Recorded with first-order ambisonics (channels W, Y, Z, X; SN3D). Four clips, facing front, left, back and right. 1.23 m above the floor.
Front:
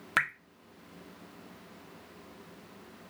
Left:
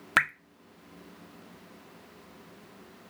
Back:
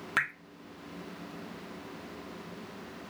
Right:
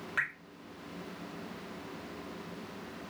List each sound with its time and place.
0.2 s dripping: 80° left, 0.6 m